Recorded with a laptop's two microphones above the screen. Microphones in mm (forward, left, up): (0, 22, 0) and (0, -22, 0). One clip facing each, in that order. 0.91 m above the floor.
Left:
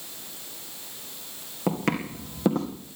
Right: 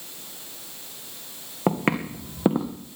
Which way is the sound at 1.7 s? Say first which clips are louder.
Right 3 dB; 25° right (ahead or behind).